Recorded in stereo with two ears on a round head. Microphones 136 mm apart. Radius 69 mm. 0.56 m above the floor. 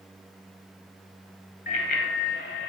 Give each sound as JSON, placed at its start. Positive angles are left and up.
{"t": 1.7, "sound": "a bicycle bell", "side_deg": 55, "distance_m": 2.5}